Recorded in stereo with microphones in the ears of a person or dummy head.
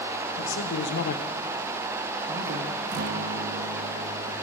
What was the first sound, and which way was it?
A man speaking, 80° left.